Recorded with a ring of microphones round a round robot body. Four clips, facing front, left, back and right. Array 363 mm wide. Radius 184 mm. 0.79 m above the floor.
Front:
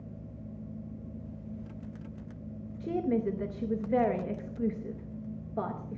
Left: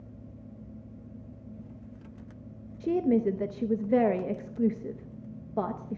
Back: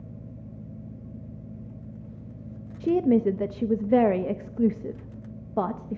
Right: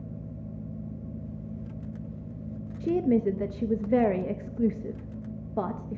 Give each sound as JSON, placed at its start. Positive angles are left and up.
{"t": 2.8, "sound": "a woman speaking", "azimuth_deg": -175, "distance_m": 0.7}